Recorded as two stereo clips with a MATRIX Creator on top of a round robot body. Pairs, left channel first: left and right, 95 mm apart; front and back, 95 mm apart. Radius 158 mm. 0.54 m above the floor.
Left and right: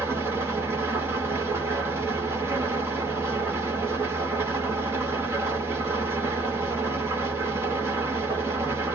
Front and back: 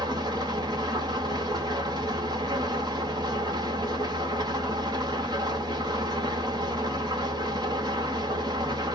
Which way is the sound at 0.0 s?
150° right.